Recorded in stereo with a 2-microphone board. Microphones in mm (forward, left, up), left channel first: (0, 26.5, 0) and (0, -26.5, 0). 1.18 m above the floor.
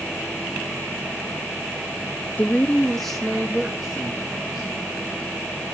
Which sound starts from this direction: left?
A woman speaking, at 2.4 s.